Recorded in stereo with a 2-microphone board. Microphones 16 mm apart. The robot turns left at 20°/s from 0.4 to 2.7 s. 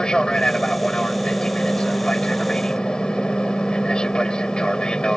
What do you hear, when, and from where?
0.0 s an aircraft: 120° left; by 5.2 s 70° left